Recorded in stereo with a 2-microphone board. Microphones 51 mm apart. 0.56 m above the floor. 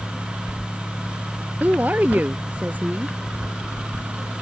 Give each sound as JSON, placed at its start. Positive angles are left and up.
{"t": 1.6, "sound": "a woman speaking", "side_deg": -35}